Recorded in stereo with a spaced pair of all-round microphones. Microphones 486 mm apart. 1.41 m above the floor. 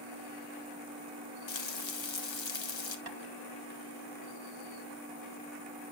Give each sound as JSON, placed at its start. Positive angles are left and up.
{"t": 1.5, "sound": "frying", "side_deg": 65, "distance_m": 0.7}
{"t": 3.1, "sound": "tapping", "side_deg": -50, "distance_m": 1.0}